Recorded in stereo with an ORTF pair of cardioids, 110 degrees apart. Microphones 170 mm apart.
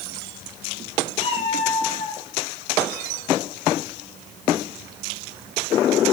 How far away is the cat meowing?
About 6 m.